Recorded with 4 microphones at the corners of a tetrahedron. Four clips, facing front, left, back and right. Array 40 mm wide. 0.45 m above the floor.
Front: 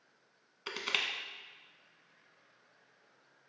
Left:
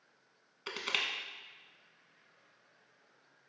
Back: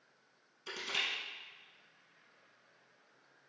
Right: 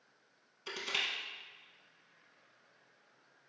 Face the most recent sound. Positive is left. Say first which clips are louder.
# left 1 dB, front 3 dB
turn(degrees=30)